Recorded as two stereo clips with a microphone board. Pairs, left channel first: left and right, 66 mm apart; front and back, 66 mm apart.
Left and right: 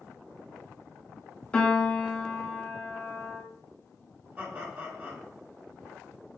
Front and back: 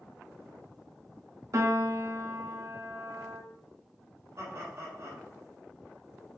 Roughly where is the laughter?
Behind.